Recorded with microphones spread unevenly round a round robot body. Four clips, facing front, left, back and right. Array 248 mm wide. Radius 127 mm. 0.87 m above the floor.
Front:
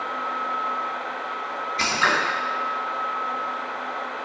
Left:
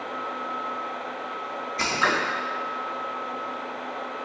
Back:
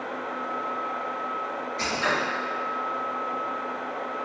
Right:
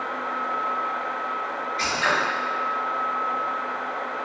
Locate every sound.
1.8 s scissors: 50° left, 0.9 m